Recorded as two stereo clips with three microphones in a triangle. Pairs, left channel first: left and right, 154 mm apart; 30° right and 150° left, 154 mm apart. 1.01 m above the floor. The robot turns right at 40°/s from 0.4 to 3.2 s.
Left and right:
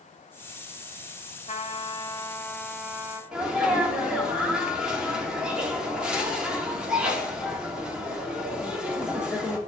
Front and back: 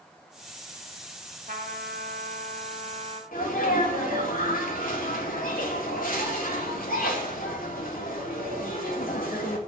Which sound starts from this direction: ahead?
A sneeze, at 3.3 s.